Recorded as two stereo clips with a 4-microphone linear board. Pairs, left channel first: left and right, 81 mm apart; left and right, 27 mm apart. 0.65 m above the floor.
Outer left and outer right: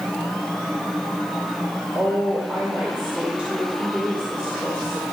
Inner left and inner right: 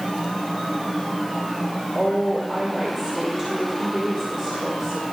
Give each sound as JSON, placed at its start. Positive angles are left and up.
{"t": 1.9, "sound": "a woman speaking", "side_deg": -20, "distance_m": 2.5}